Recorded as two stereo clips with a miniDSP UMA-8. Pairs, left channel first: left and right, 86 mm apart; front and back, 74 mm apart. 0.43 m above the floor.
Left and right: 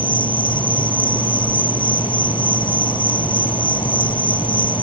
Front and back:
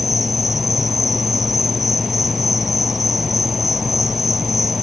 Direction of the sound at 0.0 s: 95° left.